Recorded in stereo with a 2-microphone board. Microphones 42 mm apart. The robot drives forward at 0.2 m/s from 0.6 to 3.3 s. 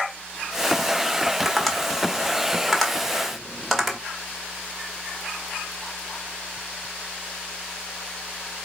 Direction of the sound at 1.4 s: 5° left (ahead or behind).